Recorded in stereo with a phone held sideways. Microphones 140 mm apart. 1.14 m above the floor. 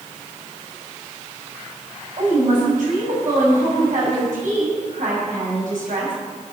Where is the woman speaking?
75° right (ahead or behind), 6.5 m.